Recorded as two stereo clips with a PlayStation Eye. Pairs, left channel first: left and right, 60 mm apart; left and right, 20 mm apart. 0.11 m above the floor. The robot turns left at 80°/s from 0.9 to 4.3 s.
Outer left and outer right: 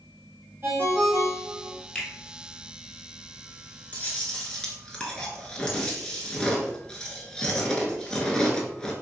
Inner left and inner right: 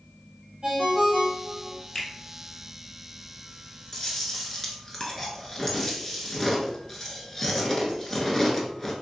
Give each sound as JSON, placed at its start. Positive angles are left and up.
{"t": 0.6, "sound": "a ringtone", "azimuth_deg": -45, "distance_m": 1.6}
{"t": 1.9, "sound": "a finger snap", "side_deg": 20, "distance_m": 0.9}
{"t": 3.9, "sound": "chewing", "azimuth_deg": 60, "distance_m": 0.7}